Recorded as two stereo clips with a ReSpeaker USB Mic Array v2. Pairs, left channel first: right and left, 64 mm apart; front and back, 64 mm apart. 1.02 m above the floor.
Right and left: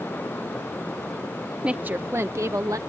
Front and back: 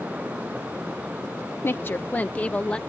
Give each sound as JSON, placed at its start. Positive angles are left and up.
{"t": 1.6, "sound": "a woman speaking", "azimuth_deg": 25}